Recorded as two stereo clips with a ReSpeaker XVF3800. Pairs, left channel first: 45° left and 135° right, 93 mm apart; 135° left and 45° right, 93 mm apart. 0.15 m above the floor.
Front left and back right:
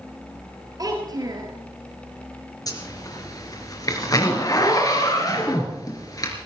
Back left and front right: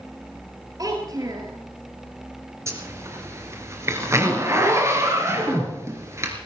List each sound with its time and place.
0.8 s a child speaking: 90° right, 2.5 m
2.7 s a zipper: 5° left, 3 m